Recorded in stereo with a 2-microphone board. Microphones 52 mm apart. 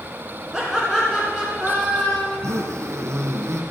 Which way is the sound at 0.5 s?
10° right (ahead or behind).